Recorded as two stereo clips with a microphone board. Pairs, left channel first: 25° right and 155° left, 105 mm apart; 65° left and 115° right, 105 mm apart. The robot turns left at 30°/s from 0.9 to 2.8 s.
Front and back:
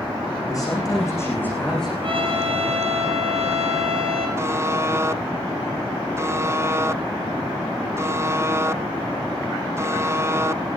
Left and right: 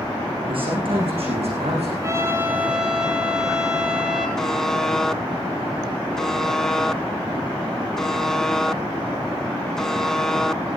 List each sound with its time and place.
0.5 s a man speaking: 80° right, 8.5 m; by 1.9 s 110° right, 8.5 m
2.0 s a trumpet: 170° right, 3 m; by 4.3 s 165° left, 3 m
4.4 s a buzzer: 145° left, 0.5 m